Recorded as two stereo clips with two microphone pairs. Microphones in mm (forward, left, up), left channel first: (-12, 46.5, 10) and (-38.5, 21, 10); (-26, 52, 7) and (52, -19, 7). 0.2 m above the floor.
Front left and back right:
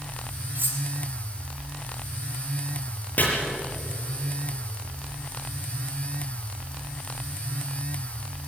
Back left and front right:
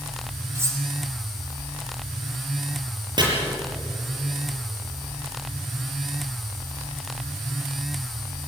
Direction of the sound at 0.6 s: 105° right.